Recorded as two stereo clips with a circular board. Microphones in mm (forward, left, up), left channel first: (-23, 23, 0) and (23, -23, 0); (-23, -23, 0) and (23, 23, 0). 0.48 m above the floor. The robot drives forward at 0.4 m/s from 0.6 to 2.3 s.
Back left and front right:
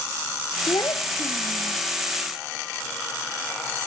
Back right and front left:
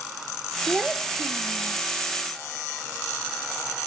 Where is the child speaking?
125° left; by 1.8 s 130° left.